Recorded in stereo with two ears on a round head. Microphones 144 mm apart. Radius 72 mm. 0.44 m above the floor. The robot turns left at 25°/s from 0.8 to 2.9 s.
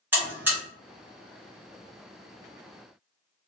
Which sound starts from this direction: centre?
A buzzer, at 0.1 s.